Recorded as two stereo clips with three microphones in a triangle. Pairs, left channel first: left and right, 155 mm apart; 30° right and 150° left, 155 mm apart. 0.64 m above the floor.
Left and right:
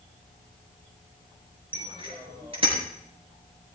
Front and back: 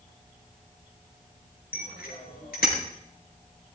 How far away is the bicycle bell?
About 6.5 m.